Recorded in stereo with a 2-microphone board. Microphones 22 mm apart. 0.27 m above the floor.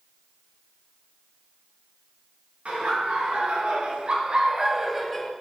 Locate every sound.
2.6 s laughter: 65° right (ahead or behind), 4 m; by 5.3 s 10° left (ahead or behind), 1.6 m